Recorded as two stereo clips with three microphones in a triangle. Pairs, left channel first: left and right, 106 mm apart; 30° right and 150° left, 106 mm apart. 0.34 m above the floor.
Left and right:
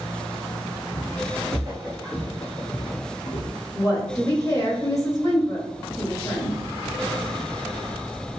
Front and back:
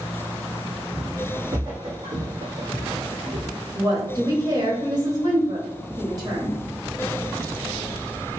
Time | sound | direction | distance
0.9 | footsteps | 150° right | 1.7 m
3.7 | a woman speaking | 130° left | 1.1 m